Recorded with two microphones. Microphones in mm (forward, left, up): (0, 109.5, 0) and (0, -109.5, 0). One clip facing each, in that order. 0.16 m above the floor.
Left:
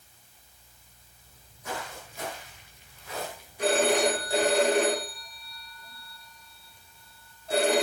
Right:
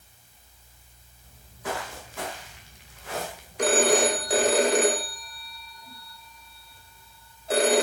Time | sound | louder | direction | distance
1.2 | footsteps | right 5 dB | 90° right | 7.5 m
3.6 | a phone ringing | right 2 dB | 80° right | 5.5 m